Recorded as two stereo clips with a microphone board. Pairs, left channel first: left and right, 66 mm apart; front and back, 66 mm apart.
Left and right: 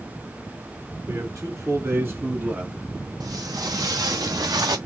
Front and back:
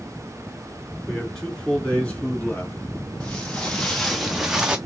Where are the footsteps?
75° right, 1.4 m; by 4.8 s 105° right, 0.7 m.